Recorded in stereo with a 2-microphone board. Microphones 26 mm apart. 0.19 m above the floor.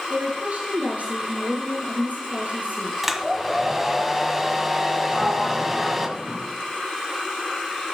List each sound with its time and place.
0.1 s a woman speaking: 65° right (ahead or behind), 3 m
3.0 s a hair dryer: 10° right (ahead or behind), 1.3 m
5.1 s a sliding door: 25° right (ahead or behind), 6 m